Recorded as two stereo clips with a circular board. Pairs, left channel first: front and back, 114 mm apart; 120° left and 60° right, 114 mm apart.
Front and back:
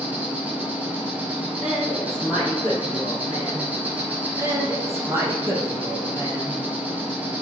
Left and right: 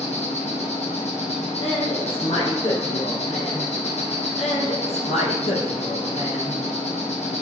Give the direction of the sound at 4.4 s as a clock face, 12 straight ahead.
8 o'clock.